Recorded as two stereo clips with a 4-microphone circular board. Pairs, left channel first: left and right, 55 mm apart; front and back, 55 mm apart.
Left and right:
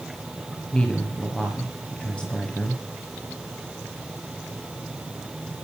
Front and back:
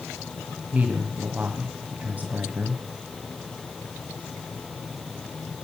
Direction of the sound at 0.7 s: 150° left.